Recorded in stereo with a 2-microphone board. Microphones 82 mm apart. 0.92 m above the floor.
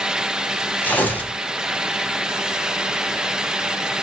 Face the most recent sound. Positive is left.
turn(degrees=20)  # may be behind; listen again after turning